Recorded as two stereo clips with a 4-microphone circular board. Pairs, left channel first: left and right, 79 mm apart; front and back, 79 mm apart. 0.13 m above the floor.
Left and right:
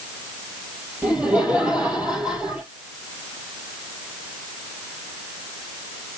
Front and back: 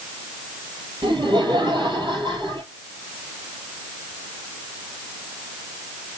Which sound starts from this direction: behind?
Laughter, at 1.0 s.